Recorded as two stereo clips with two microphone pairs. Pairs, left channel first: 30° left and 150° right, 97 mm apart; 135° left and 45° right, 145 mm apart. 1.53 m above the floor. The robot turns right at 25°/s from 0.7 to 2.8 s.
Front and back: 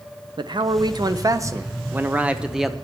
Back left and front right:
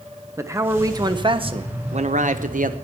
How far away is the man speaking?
About 0.6 m.